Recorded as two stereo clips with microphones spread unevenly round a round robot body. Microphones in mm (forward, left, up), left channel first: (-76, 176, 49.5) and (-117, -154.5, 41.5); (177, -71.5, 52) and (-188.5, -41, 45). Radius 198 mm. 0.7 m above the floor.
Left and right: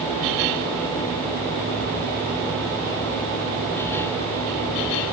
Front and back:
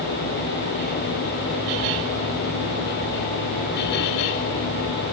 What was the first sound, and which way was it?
Only background noise.